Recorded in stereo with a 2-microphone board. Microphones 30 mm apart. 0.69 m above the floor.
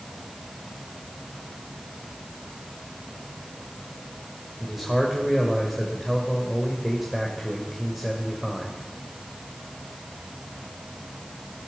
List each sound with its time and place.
4.6 s a man speaking: 10° right (ahead or behind), 2 m